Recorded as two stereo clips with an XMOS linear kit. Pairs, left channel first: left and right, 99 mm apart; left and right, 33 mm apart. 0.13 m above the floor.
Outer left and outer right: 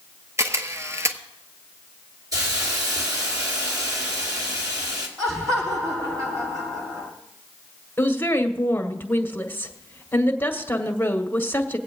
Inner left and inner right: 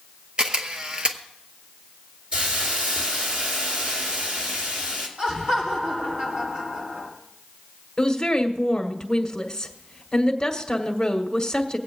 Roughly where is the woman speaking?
Left.